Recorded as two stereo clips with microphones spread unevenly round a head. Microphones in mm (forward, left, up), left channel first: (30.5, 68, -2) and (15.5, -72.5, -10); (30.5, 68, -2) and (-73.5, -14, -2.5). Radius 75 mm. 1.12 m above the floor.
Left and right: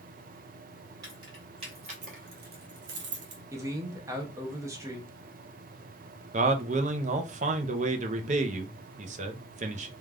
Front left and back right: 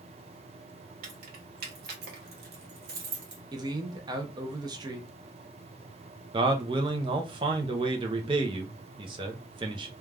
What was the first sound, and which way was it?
Keys jangling, 165° right.